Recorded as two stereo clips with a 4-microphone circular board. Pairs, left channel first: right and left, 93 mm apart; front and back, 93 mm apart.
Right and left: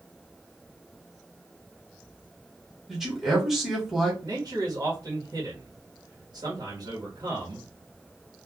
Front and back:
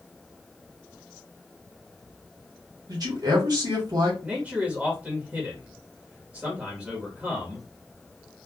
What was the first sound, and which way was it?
A man speaking, 175° left.